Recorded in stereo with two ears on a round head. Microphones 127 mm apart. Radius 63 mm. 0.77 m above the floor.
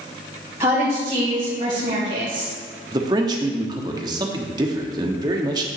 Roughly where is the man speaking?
Right.